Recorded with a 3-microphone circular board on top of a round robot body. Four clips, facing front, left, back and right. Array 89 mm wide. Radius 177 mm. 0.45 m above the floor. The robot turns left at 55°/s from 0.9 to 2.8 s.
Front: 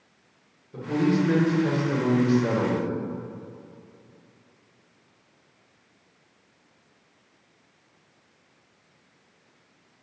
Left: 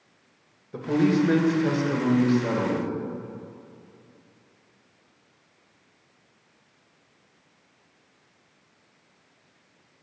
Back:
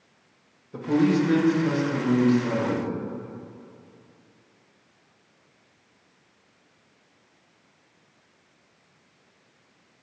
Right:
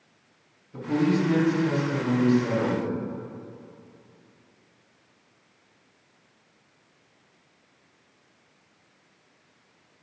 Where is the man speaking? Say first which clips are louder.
Left 2 dB, back 2 dB; 110° left, 2.5 m; by 2.9 s 5° left, 2.5 m.